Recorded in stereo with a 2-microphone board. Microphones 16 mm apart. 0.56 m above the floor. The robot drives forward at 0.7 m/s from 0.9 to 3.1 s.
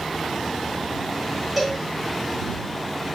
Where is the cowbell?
5° right (ahead or behind), 1.1 m.